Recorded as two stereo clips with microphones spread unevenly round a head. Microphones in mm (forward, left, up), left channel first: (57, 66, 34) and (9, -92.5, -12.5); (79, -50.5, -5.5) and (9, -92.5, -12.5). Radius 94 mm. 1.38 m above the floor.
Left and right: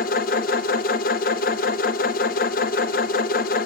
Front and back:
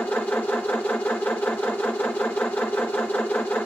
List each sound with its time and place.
0.0 s a machine running: 110° left, 0.8 m